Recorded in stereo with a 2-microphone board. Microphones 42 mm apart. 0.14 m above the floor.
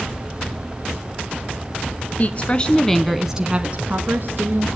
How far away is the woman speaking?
About 1.3 m.